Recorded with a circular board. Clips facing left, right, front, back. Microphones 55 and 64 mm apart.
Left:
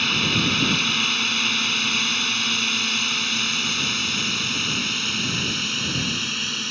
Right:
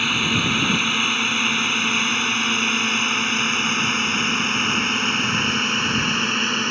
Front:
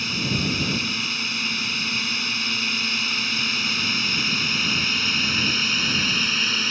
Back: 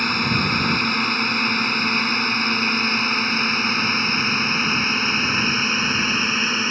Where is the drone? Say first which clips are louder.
Right 1 dB, back 5 dB; 165° right; by 6.7 s 125° right.